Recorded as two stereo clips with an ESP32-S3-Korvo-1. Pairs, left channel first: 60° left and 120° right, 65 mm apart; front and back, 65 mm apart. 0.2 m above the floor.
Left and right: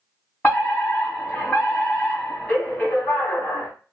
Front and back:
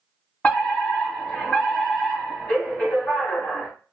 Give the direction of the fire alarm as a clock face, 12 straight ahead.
11 o'clock.